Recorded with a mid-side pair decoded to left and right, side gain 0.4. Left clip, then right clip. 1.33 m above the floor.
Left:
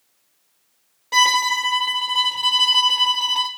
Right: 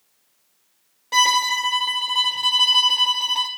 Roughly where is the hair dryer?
I don't hear a hair dryer.